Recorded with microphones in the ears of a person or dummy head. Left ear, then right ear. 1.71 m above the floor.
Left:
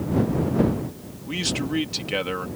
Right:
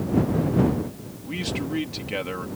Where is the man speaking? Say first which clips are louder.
Left 3 dB; 20° left (ahead or behind).